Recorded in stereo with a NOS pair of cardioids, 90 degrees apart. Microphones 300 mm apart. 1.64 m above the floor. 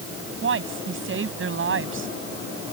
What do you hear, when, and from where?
0.4 s a woman speaking: 40° right